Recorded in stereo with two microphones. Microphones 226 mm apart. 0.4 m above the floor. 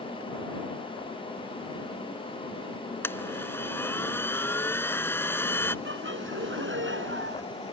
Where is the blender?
10° left (ahead or behind).